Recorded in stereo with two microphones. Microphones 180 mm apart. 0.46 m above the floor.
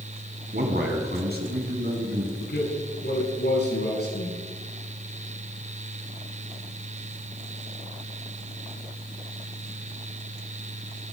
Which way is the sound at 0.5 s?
65° right (ahead or behind).